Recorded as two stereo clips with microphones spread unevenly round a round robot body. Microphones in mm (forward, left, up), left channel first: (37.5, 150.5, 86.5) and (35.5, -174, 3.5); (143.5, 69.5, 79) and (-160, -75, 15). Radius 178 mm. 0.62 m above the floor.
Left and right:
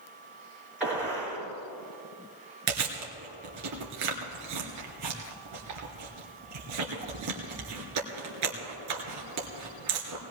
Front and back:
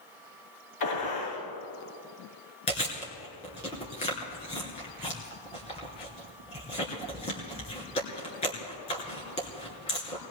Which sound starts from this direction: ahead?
A gunshot, at 0.8 s.